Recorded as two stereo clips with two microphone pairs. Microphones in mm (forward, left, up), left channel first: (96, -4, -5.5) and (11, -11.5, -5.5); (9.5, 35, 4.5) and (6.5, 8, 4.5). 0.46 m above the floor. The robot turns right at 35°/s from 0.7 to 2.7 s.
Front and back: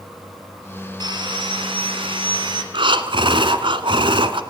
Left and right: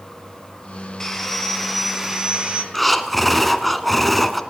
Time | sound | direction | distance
1.0 | sawing | 150° left | 3 m
2.7 | breathing | 170° left | 1.4 m